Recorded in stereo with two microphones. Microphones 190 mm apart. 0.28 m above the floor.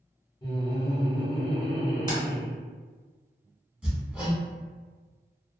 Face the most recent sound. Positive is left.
turn(degrees=-5)  # may be behind; listen again after turning